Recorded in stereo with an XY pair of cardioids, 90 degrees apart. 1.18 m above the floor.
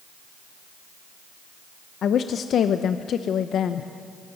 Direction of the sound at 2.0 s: 70° left.